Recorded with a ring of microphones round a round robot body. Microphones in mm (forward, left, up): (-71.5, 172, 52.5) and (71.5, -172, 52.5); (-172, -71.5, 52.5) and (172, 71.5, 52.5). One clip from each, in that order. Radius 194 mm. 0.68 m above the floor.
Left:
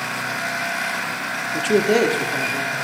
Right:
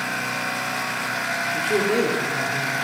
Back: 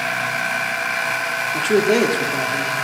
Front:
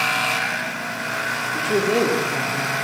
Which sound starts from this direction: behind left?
A man speaking, at 1.5 s.